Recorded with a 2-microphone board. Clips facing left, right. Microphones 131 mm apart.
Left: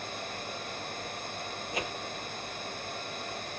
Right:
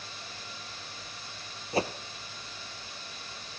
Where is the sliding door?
I don't hear a sliding door.